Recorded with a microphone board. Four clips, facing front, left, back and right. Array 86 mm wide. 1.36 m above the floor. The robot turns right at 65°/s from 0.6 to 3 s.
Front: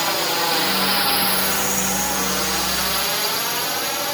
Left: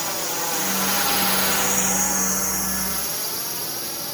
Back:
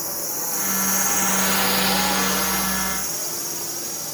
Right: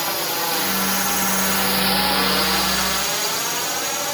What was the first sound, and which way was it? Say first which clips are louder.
A drone: right 4 dB, front 11 dB; 20° right.